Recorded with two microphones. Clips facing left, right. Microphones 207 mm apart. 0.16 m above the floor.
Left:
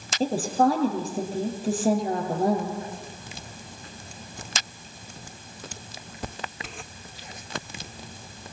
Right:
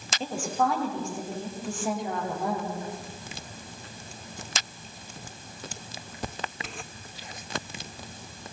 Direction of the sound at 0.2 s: 35° left (ahead or behind).